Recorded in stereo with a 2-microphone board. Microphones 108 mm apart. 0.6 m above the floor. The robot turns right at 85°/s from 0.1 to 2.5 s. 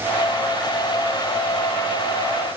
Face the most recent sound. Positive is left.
No sound to turn to.